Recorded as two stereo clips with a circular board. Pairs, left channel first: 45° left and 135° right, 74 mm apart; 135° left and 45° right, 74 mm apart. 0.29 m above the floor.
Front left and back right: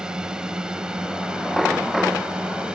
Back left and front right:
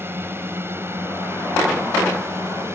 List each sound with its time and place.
0.0 s a drone: 60° right; by 2.8 s 65° right